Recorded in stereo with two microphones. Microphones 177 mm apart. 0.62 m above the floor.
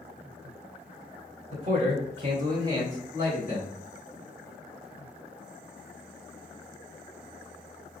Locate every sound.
1.5 s a man speaking: 40° right (ahead or behind), 2 m; by 3.7 s 10° right (ahead or behind), 2.5 m